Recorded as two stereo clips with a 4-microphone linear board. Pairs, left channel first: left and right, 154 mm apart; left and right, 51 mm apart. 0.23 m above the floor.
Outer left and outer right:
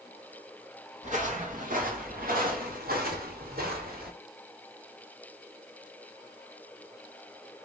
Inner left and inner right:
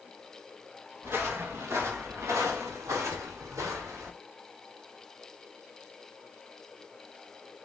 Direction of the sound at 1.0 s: 50° right (ahead or behind).